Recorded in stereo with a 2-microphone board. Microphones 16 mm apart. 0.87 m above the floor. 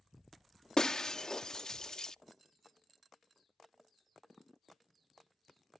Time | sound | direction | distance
0.8 | breaking glass | 45° left (ahead or behind) | ?